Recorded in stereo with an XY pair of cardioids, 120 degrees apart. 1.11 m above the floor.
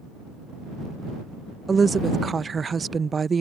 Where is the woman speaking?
30° right.